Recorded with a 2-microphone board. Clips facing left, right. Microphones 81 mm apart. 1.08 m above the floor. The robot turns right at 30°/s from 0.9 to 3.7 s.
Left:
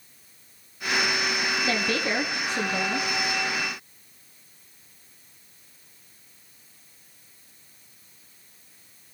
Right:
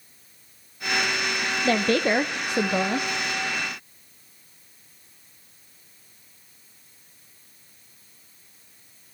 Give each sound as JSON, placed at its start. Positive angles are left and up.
{"t": 1.6, "sound": "a woman speaking", "azimuth_deg": -130, "distance_m": 0.7}